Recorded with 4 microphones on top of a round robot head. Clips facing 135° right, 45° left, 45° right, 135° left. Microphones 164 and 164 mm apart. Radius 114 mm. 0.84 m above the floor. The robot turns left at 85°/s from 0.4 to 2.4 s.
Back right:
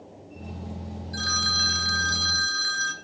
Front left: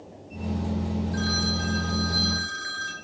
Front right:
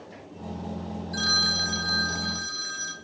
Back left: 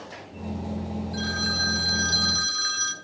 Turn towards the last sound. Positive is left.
turn(degrees=175)